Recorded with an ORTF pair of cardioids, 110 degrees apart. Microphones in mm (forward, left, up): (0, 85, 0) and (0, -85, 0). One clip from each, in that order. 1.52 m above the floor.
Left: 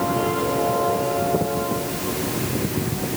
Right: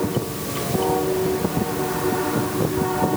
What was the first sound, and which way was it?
Only background noise.